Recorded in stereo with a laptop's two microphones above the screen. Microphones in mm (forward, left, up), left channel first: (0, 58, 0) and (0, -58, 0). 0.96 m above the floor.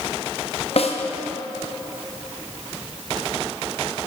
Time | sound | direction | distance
0.8 | a snare drum | 60° left (ahead or behind) | 0.6 m